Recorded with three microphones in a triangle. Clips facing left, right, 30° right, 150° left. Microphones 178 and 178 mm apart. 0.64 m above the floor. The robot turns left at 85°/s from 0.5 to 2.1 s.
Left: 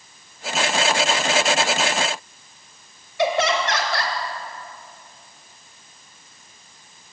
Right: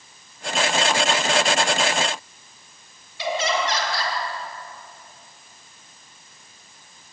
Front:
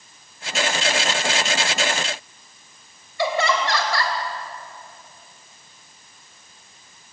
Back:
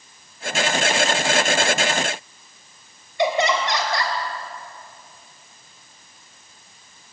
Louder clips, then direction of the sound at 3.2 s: Left 4 dB, back 2 dB; 80° left.